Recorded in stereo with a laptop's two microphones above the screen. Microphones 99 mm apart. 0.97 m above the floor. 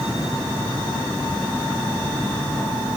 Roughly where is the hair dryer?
No hair dryer in this recording.